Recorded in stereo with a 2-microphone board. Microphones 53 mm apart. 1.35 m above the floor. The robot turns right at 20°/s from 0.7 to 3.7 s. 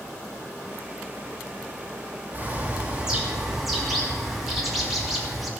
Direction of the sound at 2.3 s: 30° right (ahead or behind).